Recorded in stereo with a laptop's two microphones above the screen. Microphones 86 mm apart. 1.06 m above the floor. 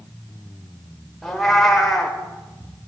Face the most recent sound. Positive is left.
turn(degrees=0)  # may be behind; listen again after turning